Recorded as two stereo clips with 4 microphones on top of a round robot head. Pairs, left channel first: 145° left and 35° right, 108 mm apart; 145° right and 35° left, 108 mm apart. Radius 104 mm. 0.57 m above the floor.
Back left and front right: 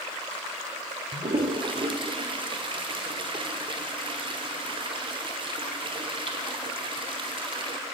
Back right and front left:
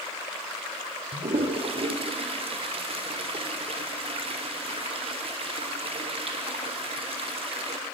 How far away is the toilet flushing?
About 1.3 m.